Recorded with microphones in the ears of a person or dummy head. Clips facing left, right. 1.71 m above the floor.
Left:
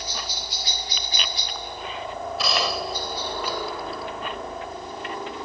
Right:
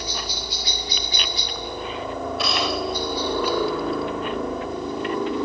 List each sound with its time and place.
0.0 s a helicopter: 65° right (ahead or behind)
2.4 s a gunshot: centre (ahead or behind)